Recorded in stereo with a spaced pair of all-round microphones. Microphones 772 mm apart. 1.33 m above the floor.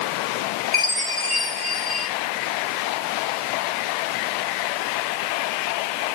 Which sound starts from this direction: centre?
A chime, at 0.7 s.